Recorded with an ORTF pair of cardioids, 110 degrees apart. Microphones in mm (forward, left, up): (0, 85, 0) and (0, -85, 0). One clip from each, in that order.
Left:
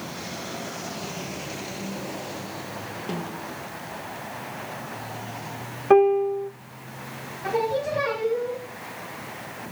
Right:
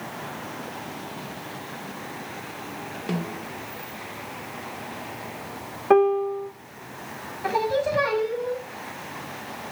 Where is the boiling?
No boiling in this recording.